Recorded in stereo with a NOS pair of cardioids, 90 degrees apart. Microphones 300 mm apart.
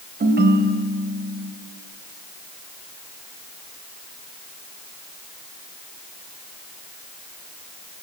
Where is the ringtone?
35° right, 3.5 m.